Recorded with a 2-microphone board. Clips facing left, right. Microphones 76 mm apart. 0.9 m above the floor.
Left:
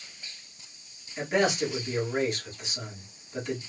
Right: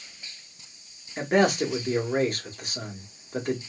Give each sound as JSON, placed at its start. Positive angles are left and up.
{"t": 1.2, "sound": "a man speaking", "side_deg": -50, "distance_m": 1.5}